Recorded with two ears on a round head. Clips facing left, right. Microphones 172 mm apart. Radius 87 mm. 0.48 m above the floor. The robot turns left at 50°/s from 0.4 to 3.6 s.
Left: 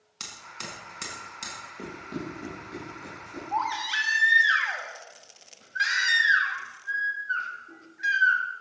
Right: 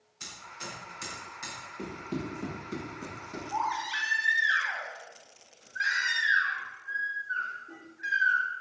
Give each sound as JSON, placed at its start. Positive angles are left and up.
{"t": 0.2, "sound": "hammering", "side_deg": 80, "distance_m": 4.0}
{"t": 1.8, "sound": "running footsteps", "side_deg": 0, "distance_m": 6.0}
{"t": 3.5, "sound": "a baby crying", "side_deg": 65, "distance_m": 2.5}